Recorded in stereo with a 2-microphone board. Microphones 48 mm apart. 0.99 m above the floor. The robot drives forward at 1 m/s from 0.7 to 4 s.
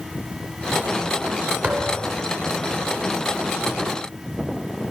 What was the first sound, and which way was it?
A thud, 35° right (ahead or behind).